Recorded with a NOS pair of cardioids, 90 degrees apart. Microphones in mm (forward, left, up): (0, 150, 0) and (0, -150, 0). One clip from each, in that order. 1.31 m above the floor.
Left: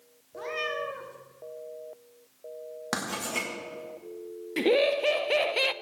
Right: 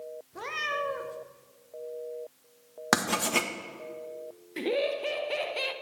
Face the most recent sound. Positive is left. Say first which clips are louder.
# left 5 dB
turn(degrees=30)